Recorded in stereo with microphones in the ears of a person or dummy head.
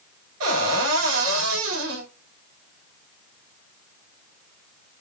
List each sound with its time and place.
0.4 s a cupboard door: 85° right, 2.5 m